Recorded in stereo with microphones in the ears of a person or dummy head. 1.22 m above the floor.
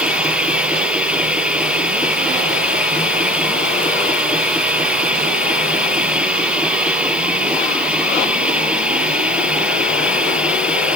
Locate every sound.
0.0 s a machine running: 5° right (ahead or behind)